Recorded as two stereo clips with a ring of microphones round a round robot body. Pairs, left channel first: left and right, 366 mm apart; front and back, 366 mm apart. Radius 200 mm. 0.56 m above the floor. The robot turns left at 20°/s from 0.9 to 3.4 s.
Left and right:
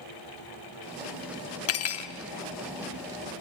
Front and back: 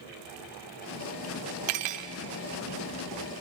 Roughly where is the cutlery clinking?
Behind left.